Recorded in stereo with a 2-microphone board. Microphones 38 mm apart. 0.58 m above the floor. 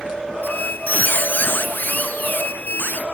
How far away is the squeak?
About 0.7 m.